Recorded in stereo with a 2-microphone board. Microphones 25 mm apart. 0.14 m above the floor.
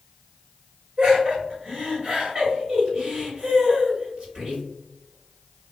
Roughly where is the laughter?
Right.